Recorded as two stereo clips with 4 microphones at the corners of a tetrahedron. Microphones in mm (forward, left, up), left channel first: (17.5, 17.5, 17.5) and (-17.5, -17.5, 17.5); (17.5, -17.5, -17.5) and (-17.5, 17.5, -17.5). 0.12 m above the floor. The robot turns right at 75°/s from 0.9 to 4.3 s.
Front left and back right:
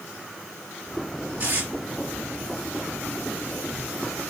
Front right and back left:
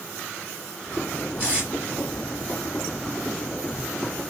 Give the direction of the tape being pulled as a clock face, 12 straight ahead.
6 o'clock.